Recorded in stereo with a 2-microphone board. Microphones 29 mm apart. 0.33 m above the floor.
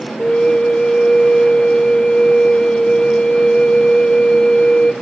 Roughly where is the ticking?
I don't hear ticking.